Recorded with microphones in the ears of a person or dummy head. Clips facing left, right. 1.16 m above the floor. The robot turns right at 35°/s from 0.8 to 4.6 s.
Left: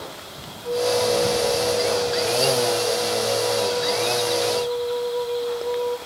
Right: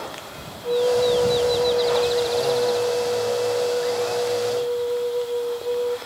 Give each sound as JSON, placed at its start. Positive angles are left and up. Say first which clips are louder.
{"t": 0.6, "sound": "a flute", "louder": "right 2 dB", "azimuth_deg": -145, "distance_m": 1.3}